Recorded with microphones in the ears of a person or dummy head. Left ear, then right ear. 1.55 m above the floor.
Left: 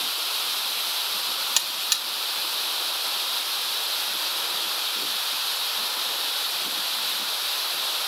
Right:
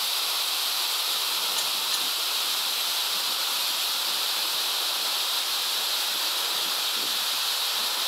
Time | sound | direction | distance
1.6 | a buzzer | 60° left (ahead or behind) | 1.2 m